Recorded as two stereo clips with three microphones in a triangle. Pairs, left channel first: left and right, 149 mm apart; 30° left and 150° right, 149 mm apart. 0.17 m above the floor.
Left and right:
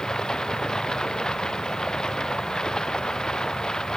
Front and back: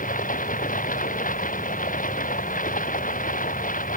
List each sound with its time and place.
0.0 s running water: 5° left